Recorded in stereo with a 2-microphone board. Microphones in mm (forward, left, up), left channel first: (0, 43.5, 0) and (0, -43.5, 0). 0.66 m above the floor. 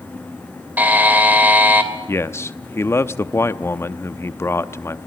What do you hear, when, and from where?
0.8 s a buzzer: 20° right (ahead or behind), 2.5 m
2.1 s a man speaking: 30° left (ahead or behind), 0.7 m